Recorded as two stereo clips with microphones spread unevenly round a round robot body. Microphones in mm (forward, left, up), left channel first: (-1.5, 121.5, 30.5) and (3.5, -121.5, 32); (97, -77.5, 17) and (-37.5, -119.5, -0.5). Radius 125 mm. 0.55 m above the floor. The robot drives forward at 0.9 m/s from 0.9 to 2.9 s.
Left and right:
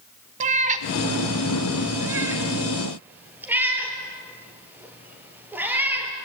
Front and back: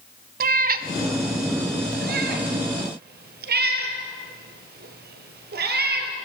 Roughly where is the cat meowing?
Behind right.